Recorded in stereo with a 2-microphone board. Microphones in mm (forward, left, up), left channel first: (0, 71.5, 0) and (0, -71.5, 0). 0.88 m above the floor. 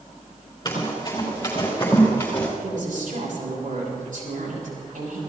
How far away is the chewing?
I don't hear chewing.